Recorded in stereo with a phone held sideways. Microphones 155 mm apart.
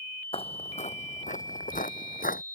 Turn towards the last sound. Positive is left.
turn(degrees=65)  # may be behind; listen again after turning